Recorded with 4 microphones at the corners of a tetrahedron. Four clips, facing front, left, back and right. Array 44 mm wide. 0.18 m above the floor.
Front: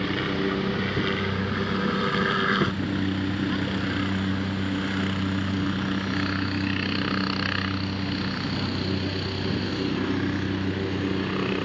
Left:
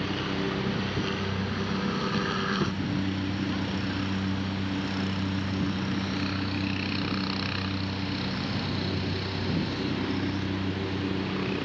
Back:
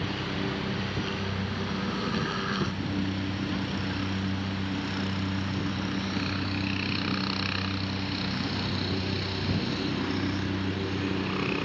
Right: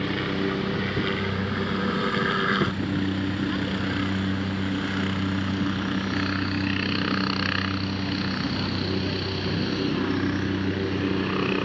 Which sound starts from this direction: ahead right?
A helicopter, at 0.0 s.